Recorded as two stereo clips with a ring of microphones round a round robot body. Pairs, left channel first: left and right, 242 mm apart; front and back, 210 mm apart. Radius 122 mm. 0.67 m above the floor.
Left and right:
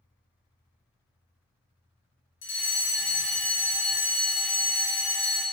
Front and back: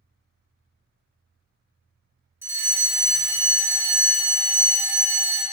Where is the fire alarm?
105° left, 2 m.